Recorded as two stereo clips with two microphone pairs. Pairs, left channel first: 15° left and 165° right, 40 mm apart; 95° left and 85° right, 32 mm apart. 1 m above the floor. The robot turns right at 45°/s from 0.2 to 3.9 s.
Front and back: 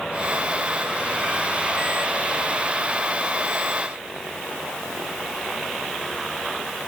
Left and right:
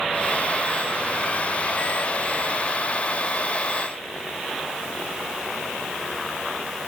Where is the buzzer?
No buzzer in this recording.